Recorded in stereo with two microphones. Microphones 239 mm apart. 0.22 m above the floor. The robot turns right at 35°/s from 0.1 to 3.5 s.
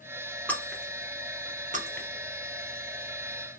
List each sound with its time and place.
0.5 s breaking glass: 5° left (ahead or behind), 1.6 m; by 2.1 s 45° right (ahead or behind), 1.6 m